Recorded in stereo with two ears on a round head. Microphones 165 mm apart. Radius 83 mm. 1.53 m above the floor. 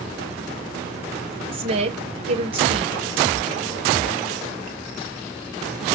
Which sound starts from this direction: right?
A woman speaking, at 1.5 s.